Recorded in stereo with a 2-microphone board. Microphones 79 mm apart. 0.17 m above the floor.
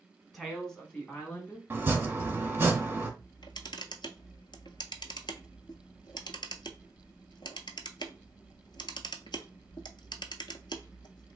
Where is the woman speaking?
Centre (ahead or behind), 1.3 m; by 1.6 s 20° left (ahead or behind), 1.3 m.